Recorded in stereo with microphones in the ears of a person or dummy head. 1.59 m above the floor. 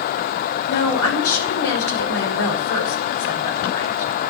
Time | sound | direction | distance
0.7 | a woman speaking | 80° left | 7 m